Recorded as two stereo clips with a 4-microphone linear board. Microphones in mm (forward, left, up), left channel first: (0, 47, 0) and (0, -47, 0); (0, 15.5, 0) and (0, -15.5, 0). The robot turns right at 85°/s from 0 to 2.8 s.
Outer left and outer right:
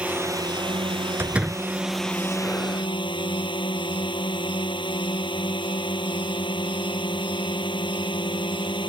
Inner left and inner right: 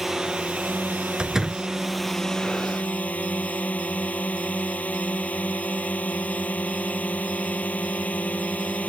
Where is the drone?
165° right; by 8.9 s 70° left.